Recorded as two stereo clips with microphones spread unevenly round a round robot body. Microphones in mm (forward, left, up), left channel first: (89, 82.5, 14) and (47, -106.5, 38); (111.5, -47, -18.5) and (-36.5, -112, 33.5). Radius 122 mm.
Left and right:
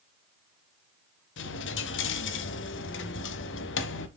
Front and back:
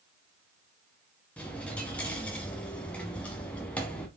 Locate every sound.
1.4 s a dropped coin: 105° left, 0.9 m